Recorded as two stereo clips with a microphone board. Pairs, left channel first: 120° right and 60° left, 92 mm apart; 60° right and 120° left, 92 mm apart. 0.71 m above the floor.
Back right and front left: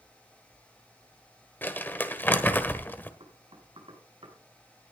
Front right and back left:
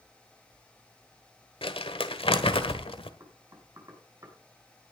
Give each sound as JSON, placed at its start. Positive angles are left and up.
{"t": 1.6, "sound": "crumpling", "azimuth_deg": -50, "distance_m": 1.4}
{"t": 3.2, "sound": "knocking", "azimuth_deg": 70, "distance_m": 5.5}